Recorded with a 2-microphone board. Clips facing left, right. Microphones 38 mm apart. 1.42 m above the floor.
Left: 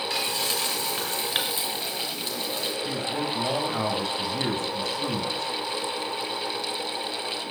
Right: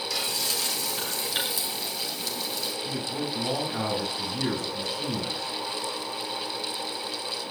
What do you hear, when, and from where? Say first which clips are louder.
0.1 s frying: left 2 dB; 35° left (ahead or behind), 5 m
2.9 s a man speaking: left 2 dB; 40° left (ahead or behind), 8 m